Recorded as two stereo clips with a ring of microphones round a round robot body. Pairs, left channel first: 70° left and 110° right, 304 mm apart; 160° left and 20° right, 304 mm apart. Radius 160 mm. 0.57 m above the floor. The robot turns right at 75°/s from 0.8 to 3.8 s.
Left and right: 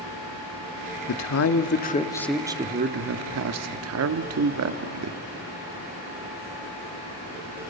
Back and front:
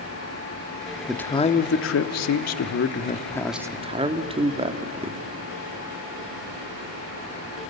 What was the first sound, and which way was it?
A man speaking, 65° left.